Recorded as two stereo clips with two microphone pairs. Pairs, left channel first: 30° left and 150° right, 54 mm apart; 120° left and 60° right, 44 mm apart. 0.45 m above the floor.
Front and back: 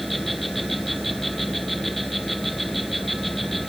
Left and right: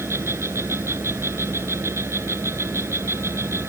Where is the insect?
55° right.